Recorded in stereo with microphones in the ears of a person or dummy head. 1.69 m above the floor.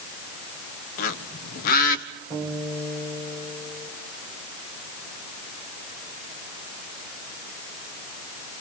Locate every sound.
1.0 s a bird: 50° left (ahead or behind), 1.6 m
2.3 s a guitar: 10° left (ahead or behind), 9 m